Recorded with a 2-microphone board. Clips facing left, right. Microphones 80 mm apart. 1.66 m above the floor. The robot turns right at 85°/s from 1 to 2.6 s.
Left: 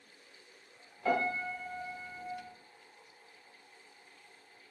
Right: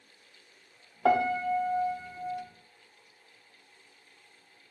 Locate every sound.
1.1 s a piano: 110° right, 0.5 m; by 2.4 s 5° left, 0.5 m